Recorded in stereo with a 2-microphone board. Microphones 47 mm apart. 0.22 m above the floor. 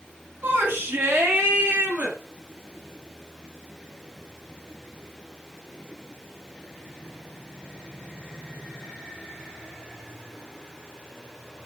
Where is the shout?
45° right (ahead or behind), 2 m; by 2.2 s 35° right (ahead or behind), 2.5 m.